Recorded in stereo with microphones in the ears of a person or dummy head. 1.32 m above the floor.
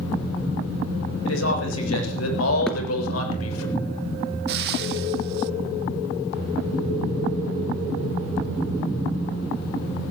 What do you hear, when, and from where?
1.2 s a man speaking: 70° left (ahead or behind), 7.5 m; by 3.7 s 85° left, 7 m
2.7 s a thud: 5° left (ahead or behind), 2.5 m
4.5 s frying: 60° right (ahead or behind), 0.8 m